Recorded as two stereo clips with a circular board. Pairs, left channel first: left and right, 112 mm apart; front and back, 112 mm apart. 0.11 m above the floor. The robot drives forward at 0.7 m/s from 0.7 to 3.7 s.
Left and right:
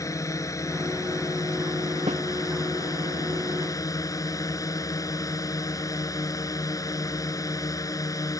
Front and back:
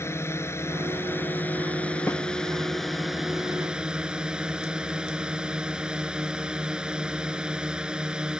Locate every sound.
0.0 s a drone: 50° left; by 8.4 s 105° left
2.1 s a snare drum: 70° right